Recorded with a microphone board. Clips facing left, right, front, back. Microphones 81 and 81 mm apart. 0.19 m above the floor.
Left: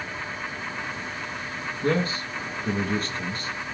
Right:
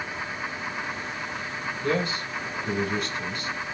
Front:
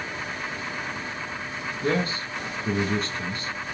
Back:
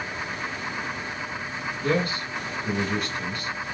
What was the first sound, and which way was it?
A man speaking, 50° left.